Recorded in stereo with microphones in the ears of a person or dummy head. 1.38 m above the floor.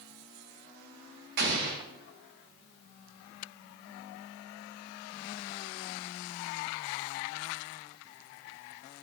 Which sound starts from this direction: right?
An explosion, at 1.4 s.